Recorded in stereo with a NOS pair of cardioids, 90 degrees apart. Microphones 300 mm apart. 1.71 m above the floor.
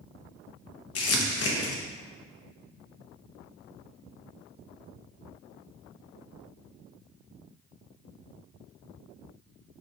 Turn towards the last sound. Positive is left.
turn(degrees=50)